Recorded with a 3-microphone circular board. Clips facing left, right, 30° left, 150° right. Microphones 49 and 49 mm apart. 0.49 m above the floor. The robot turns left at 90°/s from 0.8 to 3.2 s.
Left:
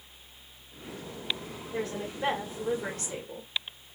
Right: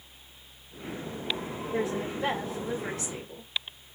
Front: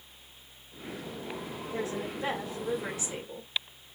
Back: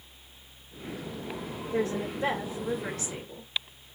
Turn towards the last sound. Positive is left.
turn(degrees=75)